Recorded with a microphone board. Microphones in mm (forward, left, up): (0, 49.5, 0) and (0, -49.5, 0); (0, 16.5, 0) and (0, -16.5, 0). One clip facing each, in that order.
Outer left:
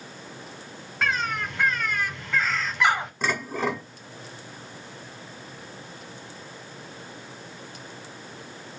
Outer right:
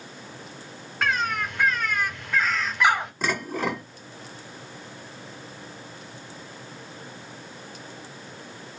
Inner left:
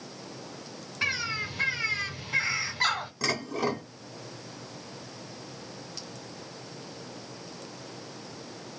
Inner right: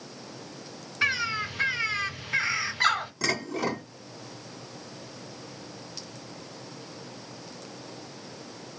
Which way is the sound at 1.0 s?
5° right (ahead or behind).